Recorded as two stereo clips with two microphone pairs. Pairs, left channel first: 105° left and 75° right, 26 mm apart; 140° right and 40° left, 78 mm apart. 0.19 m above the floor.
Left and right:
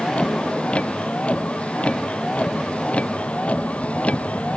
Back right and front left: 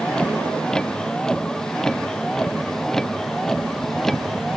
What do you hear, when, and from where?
0.0 s a vehicle: 140° left; by 4.6 s 135° left